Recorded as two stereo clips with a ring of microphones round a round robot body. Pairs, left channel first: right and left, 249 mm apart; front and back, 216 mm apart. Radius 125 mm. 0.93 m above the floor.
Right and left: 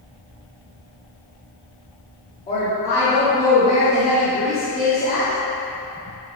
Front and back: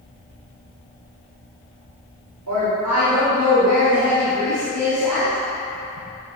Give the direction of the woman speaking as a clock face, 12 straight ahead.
5 o'clock.